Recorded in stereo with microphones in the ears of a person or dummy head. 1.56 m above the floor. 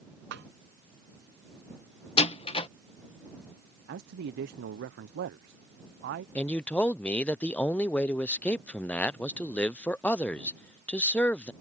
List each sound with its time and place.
0.3 s a snare drum: 60° right (ahead or behind)
2.2 s a door slam: 30° left (ahead or behind)
3.9 s a man speaking: 55° right (ahead or behind)
6.3 s a man speaking: 10° left (ahead or behind)